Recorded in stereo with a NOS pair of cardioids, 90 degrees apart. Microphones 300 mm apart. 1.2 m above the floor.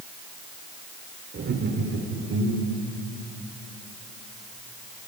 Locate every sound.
1.3 s laughter: 40° right, 5 m; by 2.9 s 50° right, 4 m